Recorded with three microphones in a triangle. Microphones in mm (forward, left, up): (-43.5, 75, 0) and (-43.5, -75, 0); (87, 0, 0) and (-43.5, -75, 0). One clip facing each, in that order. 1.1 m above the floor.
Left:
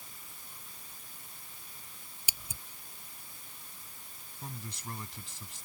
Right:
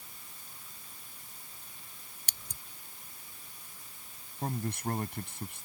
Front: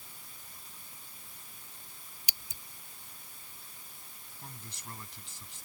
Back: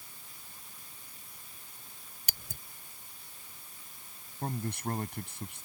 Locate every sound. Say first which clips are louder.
2.3 s scissors: left 3 dB, back 5 dB; 175° left
4.4 s a man speaking: right 10 dB, back 15 dB; 120° right